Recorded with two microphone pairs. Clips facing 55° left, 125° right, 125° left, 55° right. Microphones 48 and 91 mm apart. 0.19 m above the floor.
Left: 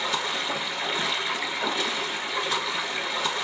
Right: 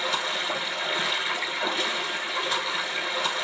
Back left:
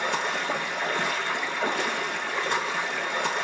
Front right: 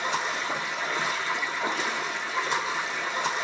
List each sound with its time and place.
0.0 s running water: 145° left, 0.8 m